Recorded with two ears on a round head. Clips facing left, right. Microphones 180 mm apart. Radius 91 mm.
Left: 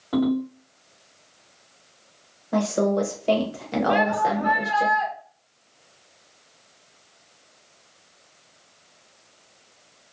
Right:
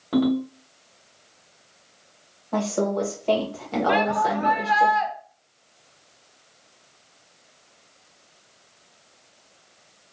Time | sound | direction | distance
0.1 | a ringtone | 35° right (ahead or behind) | 1.7 m
2.5 | a woman speaking | 15° left (ahead or behind) | 0.8 m
3.9 | a shout | 75° right (ahead or behind) | 0.9 m